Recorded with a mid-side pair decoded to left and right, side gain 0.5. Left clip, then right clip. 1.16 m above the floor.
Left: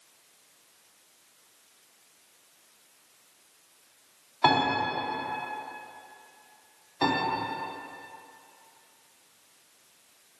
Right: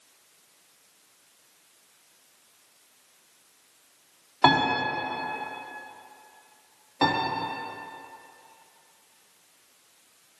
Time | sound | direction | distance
4.4 | a piano | 45° right | 2.5 m
7.0 | a piano | 50° right | 2.5 m